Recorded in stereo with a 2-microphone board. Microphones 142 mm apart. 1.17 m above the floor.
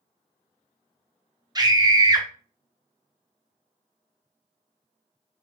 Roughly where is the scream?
Right.